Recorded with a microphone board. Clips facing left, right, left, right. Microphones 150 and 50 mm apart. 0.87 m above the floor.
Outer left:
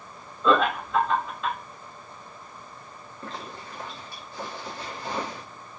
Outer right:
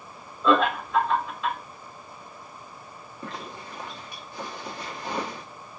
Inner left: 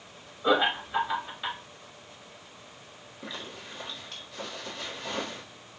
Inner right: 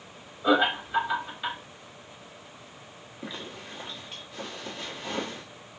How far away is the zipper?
About 1.5 m.